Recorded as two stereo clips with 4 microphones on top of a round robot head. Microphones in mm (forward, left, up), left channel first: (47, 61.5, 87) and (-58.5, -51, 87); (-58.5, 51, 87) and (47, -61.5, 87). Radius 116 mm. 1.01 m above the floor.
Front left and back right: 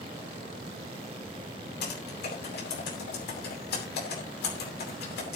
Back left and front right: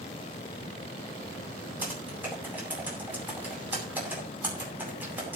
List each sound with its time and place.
1.8 s typing on a keyboard: 30° left, 9 m